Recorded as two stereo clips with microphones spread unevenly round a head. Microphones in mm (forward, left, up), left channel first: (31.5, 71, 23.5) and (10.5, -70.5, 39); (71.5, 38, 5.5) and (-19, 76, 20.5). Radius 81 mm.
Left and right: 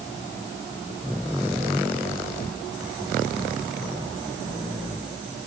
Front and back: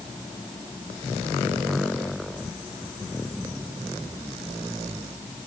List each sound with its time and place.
Only background noise.